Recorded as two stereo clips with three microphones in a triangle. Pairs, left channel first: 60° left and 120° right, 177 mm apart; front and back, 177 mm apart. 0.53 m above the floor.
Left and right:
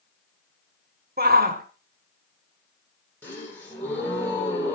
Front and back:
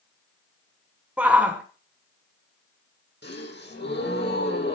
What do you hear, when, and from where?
1.2 s a shout: 100° right, 1.3 m
3.2 s a gasp: 20° right, 7 m